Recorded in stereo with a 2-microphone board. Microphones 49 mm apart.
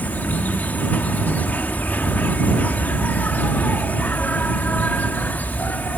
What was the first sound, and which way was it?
An insect, 40° left (ahead or behind).